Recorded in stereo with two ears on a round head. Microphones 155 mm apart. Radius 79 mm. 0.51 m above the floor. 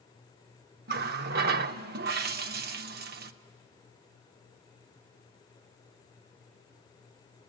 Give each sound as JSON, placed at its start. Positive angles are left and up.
{"t": 0.9, "sound": "a running tap", "side_deg": -60, "distance_m": 0.6}